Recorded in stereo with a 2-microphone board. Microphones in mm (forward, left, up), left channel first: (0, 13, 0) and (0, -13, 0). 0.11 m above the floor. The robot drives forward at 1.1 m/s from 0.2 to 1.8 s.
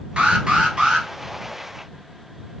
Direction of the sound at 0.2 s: 40° right (ahead or behind).